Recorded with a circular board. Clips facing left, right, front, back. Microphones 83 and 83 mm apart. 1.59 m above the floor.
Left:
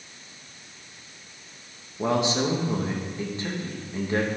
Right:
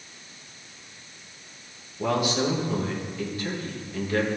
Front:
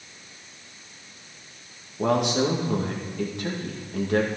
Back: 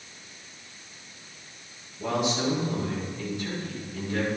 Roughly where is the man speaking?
Ahead left.